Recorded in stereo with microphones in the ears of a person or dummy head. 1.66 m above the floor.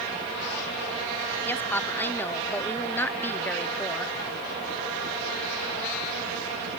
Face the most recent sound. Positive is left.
turn(degrees=10)  # may be behind; listen again after turning